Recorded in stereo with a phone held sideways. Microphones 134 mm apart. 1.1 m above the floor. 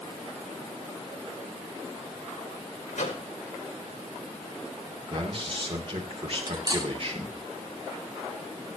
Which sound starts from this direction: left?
A microwave, at 2.9 s.